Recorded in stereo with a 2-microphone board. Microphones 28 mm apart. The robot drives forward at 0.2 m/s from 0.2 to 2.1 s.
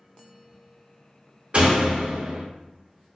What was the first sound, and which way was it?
A door slam, 35° right (ahead or behind).